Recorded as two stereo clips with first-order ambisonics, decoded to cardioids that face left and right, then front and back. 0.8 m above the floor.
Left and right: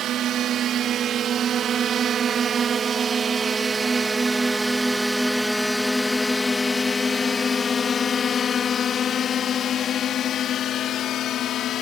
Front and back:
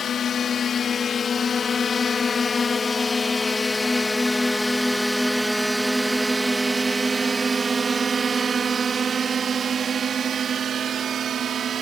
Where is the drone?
55° right; by 11.8 s 130° left.